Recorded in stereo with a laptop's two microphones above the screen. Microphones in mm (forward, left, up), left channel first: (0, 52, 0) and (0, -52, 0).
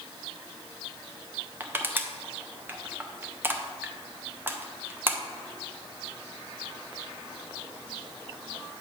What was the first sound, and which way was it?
Crushing, 20° right (ahead or behind).